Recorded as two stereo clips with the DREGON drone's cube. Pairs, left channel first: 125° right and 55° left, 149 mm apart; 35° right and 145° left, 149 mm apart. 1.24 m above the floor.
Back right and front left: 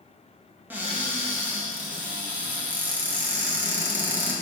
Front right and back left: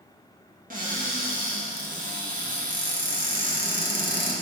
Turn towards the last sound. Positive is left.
turn(degrees=130)